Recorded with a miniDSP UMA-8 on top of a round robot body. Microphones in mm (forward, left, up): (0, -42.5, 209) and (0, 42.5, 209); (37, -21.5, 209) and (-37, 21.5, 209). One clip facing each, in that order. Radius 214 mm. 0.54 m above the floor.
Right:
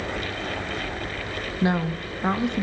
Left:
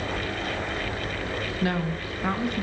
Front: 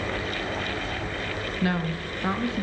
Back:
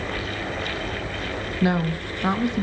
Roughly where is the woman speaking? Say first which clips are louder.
Right 5 dB, back 5 dB; behind right.